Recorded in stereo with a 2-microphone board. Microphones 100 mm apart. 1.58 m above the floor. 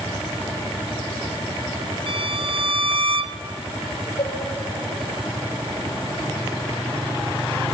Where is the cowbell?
85° left, 5 m.